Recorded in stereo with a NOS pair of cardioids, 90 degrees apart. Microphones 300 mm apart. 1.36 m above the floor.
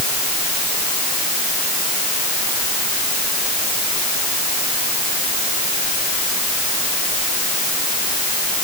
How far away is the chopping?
No chopping in this recording.